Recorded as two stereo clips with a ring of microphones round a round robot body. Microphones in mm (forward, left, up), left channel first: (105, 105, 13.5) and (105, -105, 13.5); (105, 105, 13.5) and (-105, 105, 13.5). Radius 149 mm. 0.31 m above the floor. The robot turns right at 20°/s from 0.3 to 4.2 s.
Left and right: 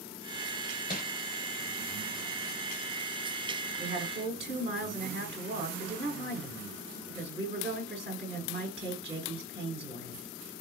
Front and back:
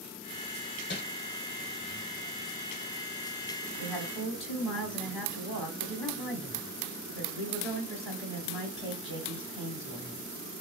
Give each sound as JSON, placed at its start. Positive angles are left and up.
{"t": 0.9, "sound": "crumpling", "azimuth_deg": 35, "distance_m": 1.1}
{"t": 3.8, "sound": "a woman speaking", "azimuth_deg": -95, "distance_m": 1.2}